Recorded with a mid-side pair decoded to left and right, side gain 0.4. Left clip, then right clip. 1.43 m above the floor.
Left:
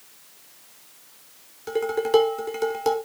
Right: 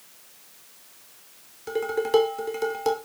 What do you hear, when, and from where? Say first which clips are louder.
1.7 s dishes clattering: left 2 dB; 10° left, 3 m